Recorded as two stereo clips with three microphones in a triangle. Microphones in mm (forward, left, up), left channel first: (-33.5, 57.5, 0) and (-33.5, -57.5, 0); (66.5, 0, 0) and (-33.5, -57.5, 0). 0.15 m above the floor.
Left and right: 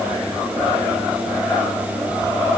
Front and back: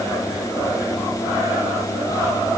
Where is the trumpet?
I don't hear a trumpet.